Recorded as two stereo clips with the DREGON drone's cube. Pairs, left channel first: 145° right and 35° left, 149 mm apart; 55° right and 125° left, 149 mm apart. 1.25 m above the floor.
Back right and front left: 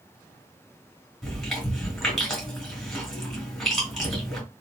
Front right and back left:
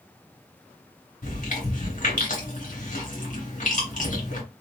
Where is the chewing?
55° right, 2.0 m.